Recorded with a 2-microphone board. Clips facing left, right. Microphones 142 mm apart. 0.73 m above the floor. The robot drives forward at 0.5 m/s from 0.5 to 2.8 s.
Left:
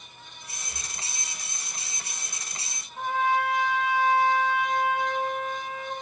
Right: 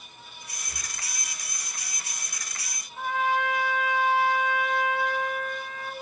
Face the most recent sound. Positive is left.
turn(degrees=35)  # may be behind; listen again after turning